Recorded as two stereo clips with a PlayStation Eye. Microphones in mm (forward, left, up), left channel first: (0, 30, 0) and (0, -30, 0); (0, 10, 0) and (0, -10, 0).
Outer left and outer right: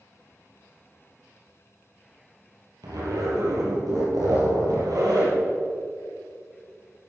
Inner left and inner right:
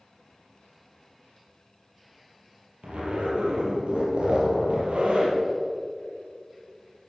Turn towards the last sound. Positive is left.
turn(degrees=-85)